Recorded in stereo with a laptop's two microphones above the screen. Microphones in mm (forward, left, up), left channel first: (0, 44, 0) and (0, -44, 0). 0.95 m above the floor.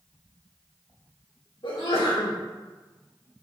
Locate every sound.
1.6 s a sneeze: 80° left, 2.5 m